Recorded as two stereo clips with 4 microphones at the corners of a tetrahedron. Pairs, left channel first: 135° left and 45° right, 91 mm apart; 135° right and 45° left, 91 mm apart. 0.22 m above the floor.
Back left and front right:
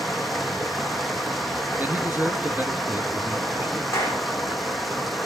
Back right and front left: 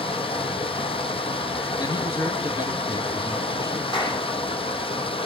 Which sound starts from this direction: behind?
A clap, at 3.9 s.